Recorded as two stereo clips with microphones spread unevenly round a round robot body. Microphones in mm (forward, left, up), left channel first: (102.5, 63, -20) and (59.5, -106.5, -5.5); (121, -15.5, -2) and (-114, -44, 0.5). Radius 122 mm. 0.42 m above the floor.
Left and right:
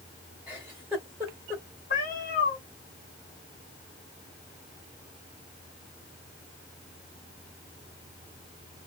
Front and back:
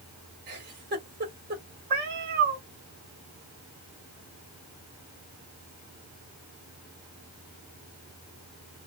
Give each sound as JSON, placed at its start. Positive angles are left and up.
{"t": 0.5, "sound": "a giggle", "azimuth_deg": 170, "distance_m": 1.5}
{"t": 1.9, "sound": "a cat meowing", "azimuth_deg": 135, "distance_m": 1.1}